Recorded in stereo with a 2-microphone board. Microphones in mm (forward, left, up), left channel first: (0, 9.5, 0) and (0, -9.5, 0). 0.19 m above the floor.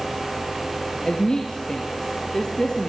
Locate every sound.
1.1 s a woman speaking: 35° left (ahead or behind), 3 m